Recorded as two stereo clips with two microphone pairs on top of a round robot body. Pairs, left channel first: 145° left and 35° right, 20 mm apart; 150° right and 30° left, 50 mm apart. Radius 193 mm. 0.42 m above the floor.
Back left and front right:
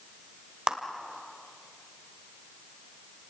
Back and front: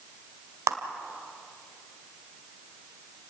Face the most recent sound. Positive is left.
turn(degrees=20)